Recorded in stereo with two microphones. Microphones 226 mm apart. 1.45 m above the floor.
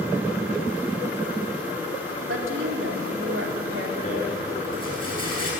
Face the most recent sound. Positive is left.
turn(degrees=25)  # may be behind; listen again after turning